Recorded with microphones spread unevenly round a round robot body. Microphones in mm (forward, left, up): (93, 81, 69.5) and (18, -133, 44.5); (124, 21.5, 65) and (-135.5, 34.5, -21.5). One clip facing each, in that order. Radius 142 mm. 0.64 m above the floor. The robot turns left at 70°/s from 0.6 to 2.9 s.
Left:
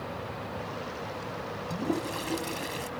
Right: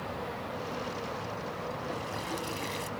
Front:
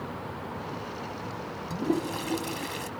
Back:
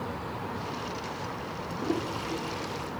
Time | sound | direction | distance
1.7 | a toilet flushing | 60° left | ?